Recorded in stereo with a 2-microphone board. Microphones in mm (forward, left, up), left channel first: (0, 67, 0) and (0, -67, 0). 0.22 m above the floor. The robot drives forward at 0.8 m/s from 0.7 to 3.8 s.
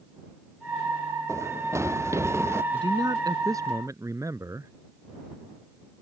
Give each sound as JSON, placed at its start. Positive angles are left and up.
{"t": 1.3, "sound": "running footsteps", "side_deg": -20}
{"t": 2.7, "sound": "a man speaking", "side_deg": -35}